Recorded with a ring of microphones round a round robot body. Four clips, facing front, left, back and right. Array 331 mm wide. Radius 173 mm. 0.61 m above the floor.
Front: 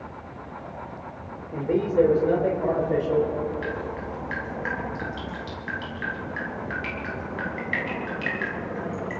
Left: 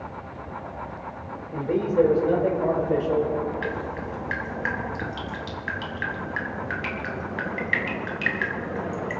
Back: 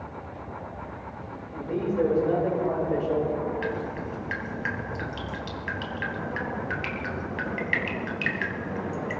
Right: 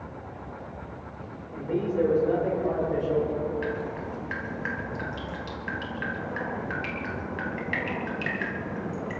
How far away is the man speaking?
About 2 m.